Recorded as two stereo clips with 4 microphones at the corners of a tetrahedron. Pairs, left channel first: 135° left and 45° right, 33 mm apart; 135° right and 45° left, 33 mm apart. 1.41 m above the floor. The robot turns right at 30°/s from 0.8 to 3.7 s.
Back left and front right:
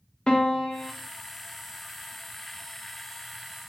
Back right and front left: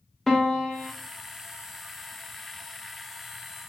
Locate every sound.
0.3 s a piano: 145° left, 0.6 m